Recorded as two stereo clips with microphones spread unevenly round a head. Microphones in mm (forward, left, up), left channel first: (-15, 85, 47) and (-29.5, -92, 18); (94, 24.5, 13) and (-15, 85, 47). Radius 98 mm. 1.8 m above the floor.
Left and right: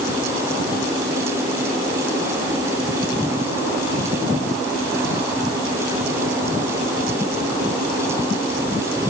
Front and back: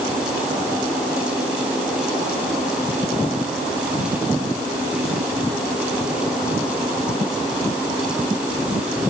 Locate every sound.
Only background noise.